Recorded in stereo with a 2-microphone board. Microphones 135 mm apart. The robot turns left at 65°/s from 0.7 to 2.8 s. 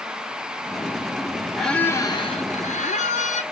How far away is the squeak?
About 0.5 m.